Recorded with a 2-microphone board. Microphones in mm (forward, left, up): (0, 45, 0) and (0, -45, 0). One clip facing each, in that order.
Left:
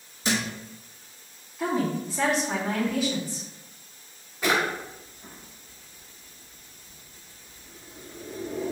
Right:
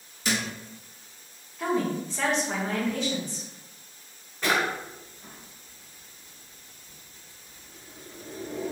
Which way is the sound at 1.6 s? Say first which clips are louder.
Even; 5° left (ahead or behind).